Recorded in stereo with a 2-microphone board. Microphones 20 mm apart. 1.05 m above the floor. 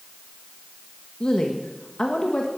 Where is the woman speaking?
40° left (ahead or behind), 1.4 m.